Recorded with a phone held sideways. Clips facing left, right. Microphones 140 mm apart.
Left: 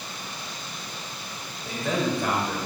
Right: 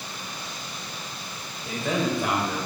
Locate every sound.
1.6 s a man speaking: centre (ahead or behind), 3.5 m; by 2.7 s 10° right (ahead or behind), 3 m